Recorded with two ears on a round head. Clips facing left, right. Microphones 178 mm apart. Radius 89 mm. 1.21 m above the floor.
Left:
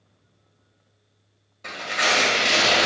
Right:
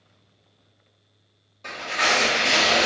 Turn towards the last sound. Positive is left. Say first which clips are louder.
# even
turn(degrees=5)  # may be behind; listen again after turning